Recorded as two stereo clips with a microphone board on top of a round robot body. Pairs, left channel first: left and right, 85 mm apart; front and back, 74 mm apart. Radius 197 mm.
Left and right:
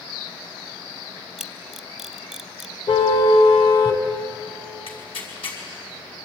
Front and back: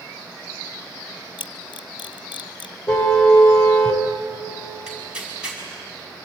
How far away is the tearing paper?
About 5.5 m.